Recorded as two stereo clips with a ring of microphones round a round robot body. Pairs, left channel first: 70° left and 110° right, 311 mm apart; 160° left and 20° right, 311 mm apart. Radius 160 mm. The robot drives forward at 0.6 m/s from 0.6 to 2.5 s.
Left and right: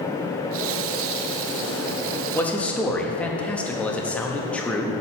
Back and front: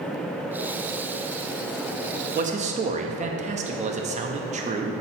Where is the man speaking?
10° right, 0.6 m.